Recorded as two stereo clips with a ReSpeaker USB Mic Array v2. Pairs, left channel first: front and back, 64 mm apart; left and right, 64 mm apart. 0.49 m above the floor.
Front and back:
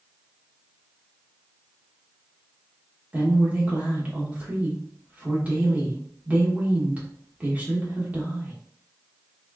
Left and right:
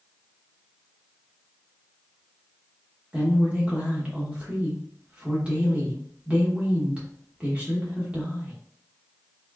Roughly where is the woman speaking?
Behind right.